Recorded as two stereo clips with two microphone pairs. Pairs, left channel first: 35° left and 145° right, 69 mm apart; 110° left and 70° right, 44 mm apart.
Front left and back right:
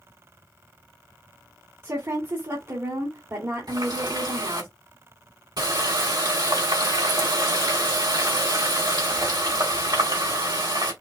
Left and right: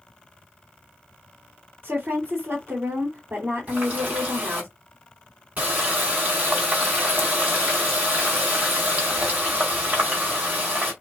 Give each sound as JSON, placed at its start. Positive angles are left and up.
{"t": 1.8, "sound": "a woman speaking", "azimuth_deg": -110, "distance_m": 2.0}
{"t": 3.7, "sound": "a running tap", "azimuth_deg": -125, "distance_m": 3.5}